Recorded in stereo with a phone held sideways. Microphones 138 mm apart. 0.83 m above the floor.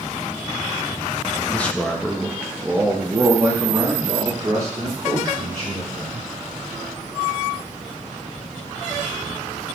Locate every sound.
1.5 s a man speaking: 15° left (ahead or behind), 0.9 m; by 6.3 s 30° right (ahead or behind), 3 m